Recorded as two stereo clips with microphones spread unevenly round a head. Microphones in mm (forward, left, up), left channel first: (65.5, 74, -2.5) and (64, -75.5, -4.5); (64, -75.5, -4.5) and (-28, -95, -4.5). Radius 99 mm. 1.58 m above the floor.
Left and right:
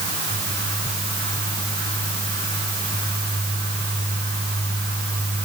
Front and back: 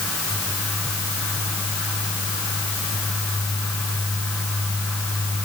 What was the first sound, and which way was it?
Only background noise.